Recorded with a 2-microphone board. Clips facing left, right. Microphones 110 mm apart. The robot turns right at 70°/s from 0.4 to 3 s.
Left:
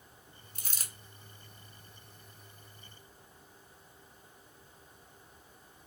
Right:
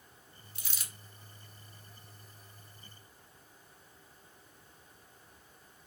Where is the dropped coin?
45° left (ahead or behind), 0.6 m; by 0.9 s 35° left (ahead or behind), 0.6 m.